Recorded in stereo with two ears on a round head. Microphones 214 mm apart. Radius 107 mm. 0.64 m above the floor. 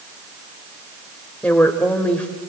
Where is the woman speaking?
5° left (ahead or behind), 2 m.